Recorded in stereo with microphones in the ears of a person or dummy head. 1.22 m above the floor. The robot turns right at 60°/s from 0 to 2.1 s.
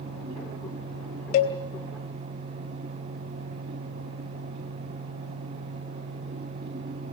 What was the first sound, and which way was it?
A cowbell, 40° left (ahead or behind).